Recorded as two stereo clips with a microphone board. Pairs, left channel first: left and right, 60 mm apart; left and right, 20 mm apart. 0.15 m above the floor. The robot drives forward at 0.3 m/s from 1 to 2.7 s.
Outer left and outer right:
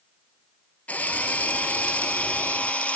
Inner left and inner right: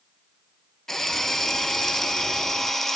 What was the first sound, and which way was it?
A drill, 25° left (ahead or behind).